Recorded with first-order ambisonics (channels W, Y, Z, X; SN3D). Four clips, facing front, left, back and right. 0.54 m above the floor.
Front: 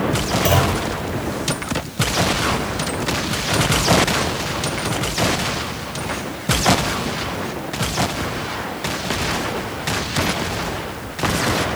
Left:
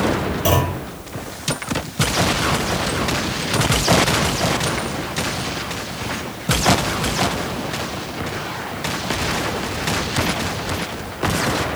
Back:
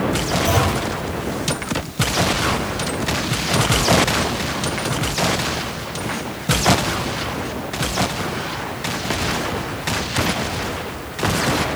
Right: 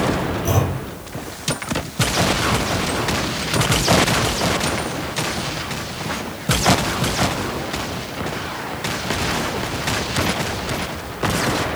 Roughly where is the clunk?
Ahead left.